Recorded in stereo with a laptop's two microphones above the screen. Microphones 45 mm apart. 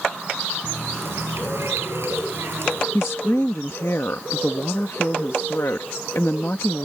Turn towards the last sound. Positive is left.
turn(degrees=70)  # may be behind; listen again after turning